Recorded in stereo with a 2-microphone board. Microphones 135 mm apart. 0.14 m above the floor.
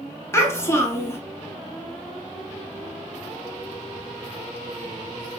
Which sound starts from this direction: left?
A child speaking, at 0.3 s.